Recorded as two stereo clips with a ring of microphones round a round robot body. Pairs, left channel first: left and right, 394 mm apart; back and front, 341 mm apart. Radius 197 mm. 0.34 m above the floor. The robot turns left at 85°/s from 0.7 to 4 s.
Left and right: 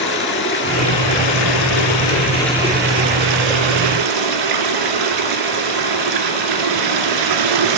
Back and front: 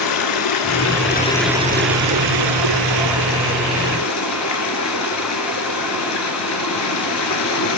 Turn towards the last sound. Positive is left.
turn(degrees=-125)